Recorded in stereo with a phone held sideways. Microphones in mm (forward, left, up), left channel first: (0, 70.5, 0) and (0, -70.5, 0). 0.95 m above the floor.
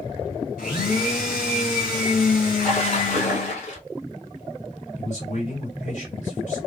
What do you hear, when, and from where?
0.6 s a blender: 80° left, 3 m
2.5 s a splash: 50° left (ahead or behind), 2 m
5.0 s a man speaking: 55° left (ahead or behind), 2.5 m